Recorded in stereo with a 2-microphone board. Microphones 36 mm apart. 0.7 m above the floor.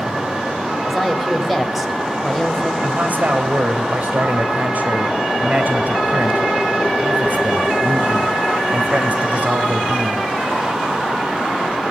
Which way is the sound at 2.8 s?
50° right (ahead or behind).